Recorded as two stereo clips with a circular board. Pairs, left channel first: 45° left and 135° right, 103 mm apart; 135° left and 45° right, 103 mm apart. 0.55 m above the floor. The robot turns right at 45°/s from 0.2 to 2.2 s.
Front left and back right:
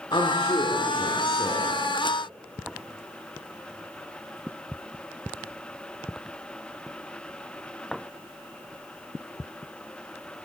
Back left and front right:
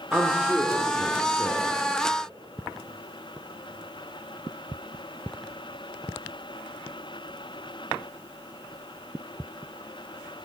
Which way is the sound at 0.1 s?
30° left.